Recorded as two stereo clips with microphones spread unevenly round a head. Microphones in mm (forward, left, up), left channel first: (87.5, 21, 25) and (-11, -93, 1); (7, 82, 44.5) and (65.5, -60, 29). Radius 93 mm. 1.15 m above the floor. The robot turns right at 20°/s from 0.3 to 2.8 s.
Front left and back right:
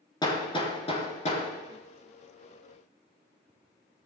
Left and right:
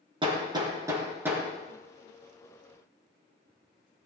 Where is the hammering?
10° right, 4.5 m; by 4.0 s 40° left, 4.5 m.